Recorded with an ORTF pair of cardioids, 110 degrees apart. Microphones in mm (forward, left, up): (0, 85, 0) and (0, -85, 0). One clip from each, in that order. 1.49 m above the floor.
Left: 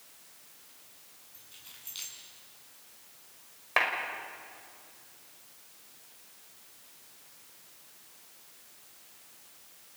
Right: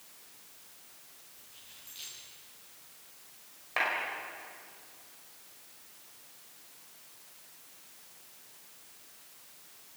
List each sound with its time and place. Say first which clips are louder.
1.3 s keys jangling: left 3 dB; 60° left, 9.5 m
3.8 s a clap: left 3 dB; 45° left, 5.5 m